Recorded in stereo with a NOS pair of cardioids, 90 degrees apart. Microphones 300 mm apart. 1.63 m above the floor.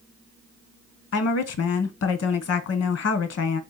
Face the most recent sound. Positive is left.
turn(degrees=55)